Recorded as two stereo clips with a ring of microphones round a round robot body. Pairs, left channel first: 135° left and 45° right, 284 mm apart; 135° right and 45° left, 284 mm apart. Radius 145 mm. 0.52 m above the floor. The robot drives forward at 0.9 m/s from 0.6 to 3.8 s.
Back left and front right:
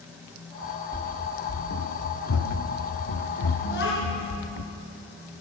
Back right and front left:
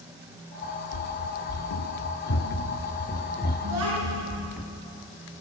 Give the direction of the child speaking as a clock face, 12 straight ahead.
9 o'clock.